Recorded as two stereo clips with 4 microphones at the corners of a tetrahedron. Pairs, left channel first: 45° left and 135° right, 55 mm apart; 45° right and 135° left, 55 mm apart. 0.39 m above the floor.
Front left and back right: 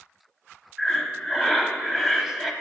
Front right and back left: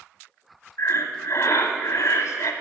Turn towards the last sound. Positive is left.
turn(degrees=-50)